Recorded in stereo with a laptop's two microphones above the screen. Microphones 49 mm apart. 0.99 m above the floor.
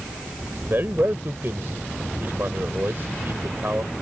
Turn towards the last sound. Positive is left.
turn(degrees=-50)  # may be behind; listen again after turning